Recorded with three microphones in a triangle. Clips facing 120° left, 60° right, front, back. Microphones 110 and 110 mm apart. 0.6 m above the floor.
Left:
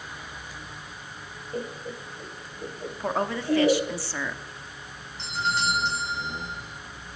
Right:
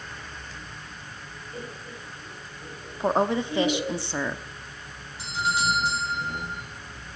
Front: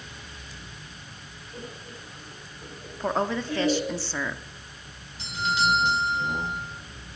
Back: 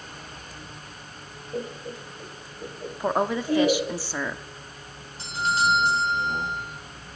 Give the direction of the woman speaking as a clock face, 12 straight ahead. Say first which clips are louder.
Right 5 dB, back 2 dB; 4 o'clock.